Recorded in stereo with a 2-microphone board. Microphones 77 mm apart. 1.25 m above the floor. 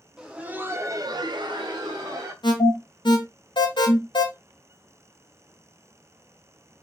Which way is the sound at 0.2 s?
10° right (ahead or behind).